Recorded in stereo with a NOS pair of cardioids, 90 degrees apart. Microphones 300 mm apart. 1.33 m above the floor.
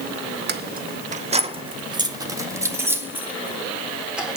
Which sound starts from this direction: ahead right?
Keys jangling, at 0.5 s.